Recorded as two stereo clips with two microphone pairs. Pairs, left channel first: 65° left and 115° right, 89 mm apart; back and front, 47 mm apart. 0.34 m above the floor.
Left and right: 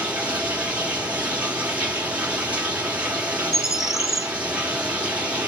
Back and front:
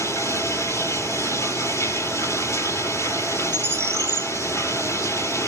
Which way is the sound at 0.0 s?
170° left.